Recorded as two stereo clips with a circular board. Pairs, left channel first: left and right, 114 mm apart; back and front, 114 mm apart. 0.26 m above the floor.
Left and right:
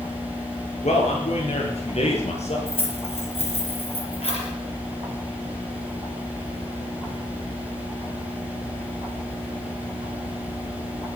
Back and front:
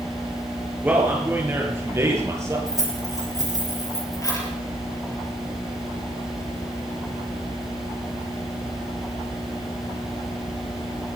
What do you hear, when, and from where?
0.8 s a man speaking: 75° left, 4.5 m; by 2.6 s 65° left, 7 m
2.7 s keys jangling: 120° left, 5 m